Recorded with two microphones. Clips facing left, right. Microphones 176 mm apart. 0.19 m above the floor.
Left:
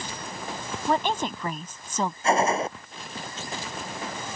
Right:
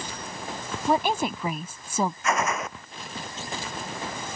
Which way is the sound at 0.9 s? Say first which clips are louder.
Right 2 dB; 10° right (ahead or behind).